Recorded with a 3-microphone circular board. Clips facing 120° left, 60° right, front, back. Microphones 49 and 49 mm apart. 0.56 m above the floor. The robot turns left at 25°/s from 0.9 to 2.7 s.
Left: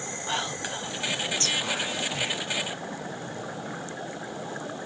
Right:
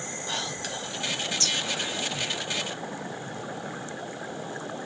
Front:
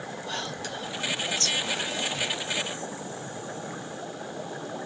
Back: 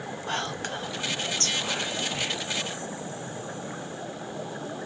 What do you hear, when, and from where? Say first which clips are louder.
0.3 s whispering: left 3 dB, back 4 dB; 175° left, 0.8 m; by 2.4 s 140° left, 0.8 m